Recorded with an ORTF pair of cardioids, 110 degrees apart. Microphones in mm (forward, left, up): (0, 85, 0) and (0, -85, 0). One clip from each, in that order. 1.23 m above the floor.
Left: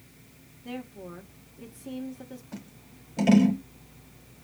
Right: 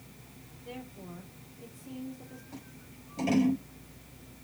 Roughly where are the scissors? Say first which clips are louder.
Left 2 dB; ahead left.